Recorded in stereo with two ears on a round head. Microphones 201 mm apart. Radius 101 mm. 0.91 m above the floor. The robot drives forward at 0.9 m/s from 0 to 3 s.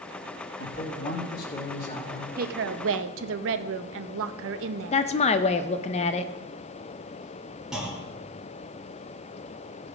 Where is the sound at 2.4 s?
40° right (ahead or behind), 0.8 m; by 5.1 s 60° right (ahead or behind), 0.6 m.